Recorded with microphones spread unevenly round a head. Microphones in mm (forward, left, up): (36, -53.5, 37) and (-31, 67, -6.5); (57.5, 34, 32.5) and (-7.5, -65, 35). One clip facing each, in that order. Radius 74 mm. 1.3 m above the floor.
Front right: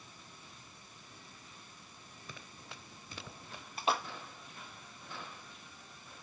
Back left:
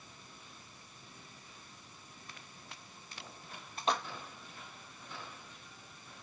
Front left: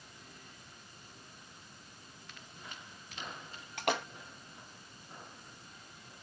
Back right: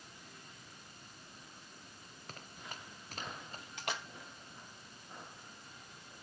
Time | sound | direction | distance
2.3 | running footsteps | 70° right | ?
3.8 | a splash | 25° left | ?